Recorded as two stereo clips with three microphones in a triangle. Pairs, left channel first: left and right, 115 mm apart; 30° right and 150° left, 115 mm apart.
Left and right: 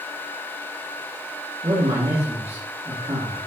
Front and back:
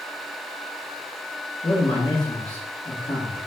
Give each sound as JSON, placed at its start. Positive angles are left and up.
{"t": 1.6, "sound": "a man speaking", "azimuth_deg": -50, "distance_m": 1.4}